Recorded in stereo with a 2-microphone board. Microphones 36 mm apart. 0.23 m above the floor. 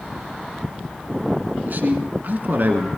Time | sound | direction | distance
1.6 | a man speaking | 60° right (ahead or behind) | 2 m